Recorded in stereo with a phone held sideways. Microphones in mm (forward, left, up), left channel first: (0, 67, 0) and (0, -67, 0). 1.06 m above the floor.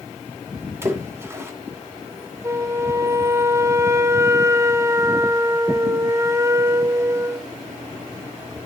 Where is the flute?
20° right (ahead or behind), 0.6 m.